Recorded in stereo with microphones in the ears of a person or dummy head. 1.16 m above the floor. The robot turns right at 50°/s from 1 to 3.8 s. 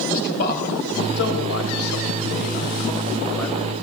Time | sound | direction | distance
0.1 | a man speaking | 50° left (ahead or behind) | 4.5 m